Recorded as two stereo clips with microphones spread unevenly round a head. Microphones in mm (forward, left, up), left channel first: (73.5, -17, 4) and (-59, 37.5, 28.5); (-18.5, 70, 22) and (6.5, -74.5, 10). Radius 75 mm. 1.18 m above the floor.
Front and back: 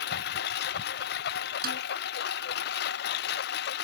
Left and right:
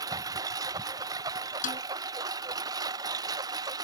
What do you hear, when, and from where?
0.0 s a lawn mower: 10° right; by 3.8 s 15° right
1.6 s a snare drum: 135° left